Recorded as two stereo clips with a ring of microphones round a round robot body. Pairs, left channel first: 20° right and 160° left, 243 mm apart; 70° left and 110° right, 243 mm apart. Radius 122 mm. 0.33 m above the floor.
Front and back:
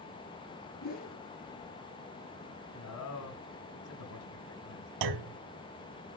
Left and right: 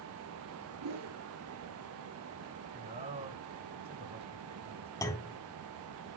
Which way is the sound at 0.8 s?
80° right.